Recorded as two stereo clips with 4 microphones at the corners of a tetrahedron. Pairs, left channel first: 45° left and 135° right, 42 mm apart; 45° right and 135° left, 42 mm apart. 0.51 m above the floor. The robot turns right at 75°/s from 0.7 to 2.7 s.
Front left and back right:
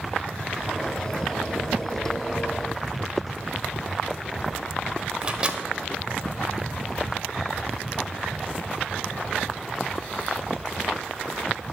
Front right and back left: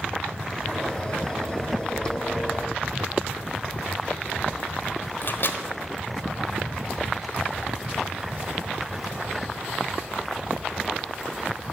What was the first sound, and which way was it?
A microwave, 70° right.